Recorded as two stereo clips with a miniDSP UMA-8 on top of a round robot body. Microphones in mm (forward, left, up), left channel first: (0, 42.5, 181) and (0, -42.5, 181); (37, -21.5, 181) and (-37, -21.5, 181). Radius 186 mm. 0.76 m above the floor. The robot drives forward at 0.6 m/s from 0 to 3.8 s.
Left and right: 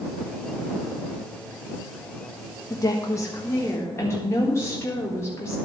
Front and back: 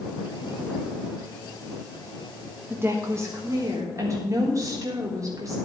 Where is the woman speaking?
125° left, 1.5 m; by 5.6 s 145° left, 1.9 m.